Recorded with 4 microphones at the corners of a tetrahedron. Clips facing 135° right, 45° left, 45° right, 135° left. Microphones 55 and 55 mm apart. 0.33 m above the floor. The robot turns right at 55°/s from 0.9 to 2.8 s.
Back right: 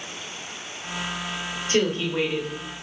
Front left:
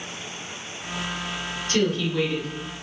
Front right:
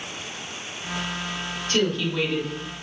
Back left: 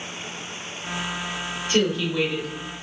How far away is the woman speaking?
About 0.9 m.